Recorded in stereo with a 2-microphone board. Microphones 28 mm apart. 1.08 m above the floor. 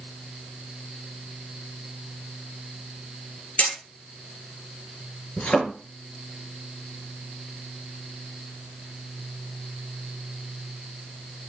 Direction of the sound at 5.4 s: 55° left (ahead or behind).